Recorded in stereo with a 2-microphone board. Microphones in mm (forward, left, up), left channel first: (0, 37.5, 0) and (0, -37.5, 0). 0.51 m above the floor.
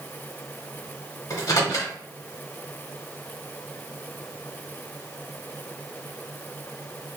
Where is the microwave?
50° left (ahead or behind), 1.1 m.